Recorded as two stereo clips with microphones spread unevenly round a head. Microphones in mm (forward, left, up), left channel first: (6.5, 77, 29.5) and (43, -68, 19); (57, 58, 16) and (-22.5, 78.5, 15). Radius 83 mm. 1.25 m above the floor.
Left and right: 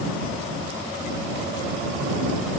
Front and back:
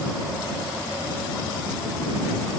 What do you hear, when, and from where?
Only background noise.